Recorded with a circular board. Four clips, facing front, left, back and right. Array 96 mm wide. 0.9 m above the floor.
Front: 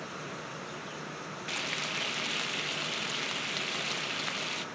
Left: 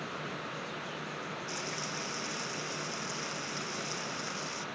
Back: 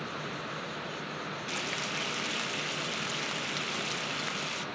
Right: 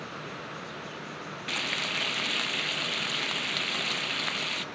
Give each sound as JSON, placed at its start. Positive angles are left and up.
{"t": 1.5, "sound": "frying", "azimuth_deg": -85, "distance_m": 0.5}